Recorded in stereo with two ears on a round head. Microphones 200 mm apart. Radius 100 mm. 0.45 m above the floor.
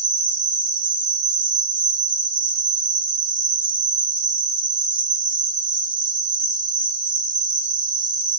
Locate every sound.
0.0 s an insect: 60° right (ahead or behind), 2.0 m